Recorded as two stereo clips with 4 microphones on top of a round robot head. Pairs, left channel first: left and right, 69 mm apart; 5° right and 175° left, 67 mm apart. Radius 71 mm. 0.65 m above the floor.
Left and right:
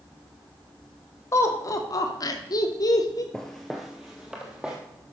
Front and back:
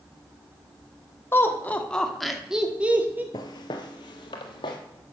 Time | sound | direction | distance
1.3 | laughter | 45° left | 1.8 m
3.3 | footsteps | 5° left | 0.9 m